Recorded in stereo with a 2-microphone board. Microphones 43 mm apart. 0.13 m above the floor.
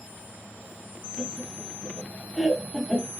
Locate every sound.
1.2 s laughter: 10° left (ahead or behind), 1.3 m